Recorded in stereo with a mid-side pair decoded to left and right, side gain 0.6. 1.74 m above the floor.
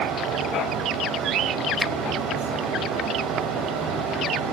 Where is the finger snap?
5° left, 0.7 m.